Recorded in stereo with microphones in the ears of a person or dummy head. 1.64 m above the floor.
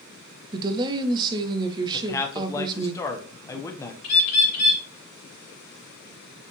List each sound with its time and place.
0.5 s a woman speaking: 20° right (ahead or behind), 0.6 m
1.9 s a man speaking: 15° left (ahead or behind), 0.9 m
4.0 s a bird: 55° left (ahead or behind), 3.5 m